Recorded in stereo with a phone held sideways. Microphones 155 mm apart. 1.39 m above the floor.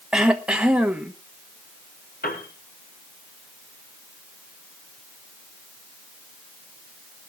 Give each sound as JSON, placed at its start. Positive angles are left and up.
{"t": 0.1, "sound": "throat clearing", "side_deg": -5, "distance_m": 1.4}
{"t": 2.2, "sound": "a piano", "side_deg": 75, "distance_m": 3.5}